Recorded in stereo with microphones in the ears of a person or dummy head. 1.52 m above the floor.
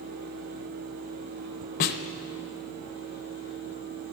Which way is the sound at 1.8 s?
45° left (ahead or behind).